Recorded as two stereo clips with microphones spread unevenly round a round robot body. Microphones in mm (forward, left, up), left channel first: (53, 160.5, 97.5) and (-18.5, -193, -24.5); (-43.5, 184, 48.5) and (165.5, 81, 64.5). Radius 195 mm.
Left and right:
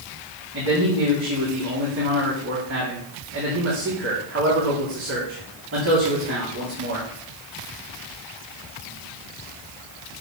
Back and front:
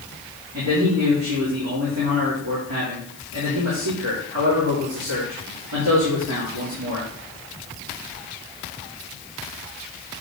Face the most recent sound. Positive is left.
turn(degrees=-55)